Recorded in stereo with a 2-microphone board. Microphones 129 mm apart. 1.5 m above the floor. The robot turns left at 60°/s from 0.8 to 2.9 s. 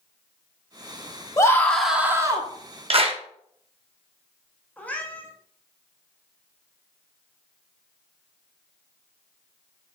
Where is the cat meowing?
10° left (ahead or behind), 1.0 m.